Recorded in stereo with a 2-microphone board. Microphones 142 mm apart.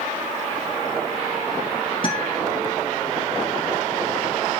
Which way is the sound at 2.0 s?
35° left (ahead or behind).